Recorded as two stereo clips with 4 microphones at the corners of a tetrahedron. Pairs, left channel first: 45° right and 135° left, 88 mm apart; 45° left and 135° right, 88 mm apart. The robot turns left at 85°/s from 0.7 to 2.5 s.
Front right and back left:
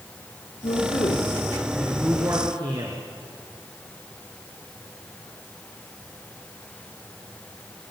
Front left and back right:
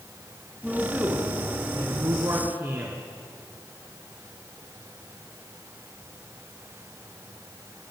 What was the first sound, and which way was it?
A man speaking, 50° right.